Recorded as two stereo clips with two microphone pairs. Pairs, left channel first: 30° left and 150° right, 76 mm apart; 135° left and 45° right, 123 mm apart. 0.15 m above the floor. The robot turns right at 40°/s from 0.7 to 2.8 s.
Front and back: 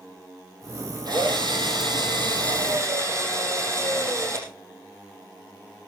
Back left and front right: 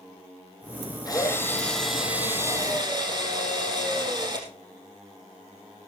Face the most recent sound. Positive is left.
turn(degrees=-100)